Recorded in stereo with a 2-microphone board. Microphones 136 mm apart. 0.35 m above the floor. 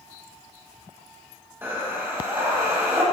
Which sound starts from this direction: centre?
Breathing, at 1.6 s.